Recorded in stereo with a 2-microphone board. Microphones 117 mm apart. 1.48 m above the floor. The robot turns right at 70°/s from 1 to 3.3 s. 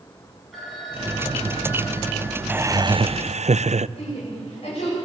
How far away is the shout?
About 9 m.